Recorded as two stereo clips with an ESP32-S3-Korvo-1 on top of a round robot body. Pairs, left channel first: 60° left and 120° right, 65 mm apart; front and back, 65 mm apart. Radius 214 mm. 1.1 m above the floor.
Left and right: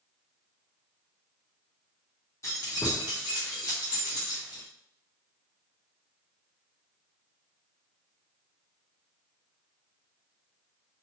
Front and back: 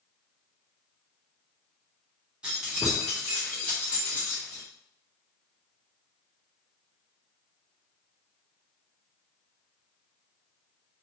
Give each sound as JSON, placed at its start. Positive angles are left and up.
{"t": 2.4, "sound": "keys jangling", "azimuth_deg": 105, "distance_m": 1.0}